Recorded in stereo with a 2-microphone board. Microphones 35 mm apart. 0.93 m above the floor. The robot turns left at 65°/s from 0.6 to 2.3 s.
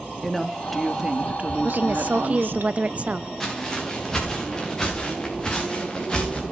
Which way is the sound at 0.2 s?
5° left.